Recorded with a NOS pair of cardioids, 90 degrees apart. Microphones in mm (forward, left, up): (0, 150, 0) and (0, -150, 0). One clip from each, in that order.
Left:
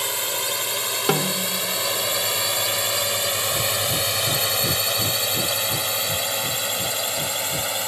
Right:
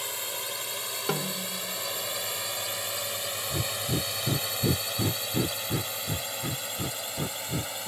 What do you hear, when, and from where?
0.0 s a drone: 60° left; by 7.9 s 65° left
1.1 s a snare drum: 55° left
3.5 s breathing: 30° right